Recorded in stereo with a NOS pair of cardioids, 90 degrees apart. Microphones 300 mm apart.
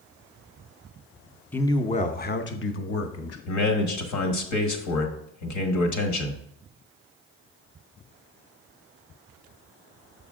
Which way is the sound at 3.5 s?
70° left.